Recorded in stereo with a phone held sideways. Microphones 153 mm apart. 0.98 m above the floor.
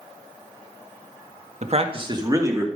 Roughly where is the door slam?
I don't hear a door slam.